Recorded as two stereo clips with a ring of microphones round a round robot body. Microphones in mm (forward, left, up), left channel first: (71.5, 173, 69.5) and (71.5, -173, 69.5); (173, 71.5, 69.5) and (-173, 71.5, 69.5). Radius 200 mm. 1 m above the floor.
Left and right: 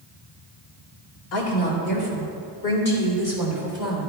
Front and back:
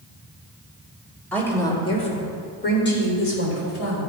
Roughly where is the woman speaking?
Left.